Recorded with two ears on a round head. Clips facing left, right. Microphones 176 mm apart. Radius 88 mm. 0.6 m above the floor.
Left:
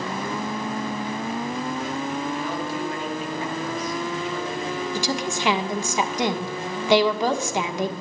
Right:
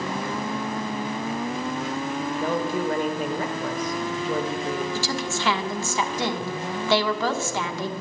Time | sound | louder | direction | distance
2.4 | a woman speaking | right 3 dB | 45° right (ahead or behind) | 2 m
5.0 | a woman speaking | left 2 dB | 15° left (ahead or behind) | 1.1 m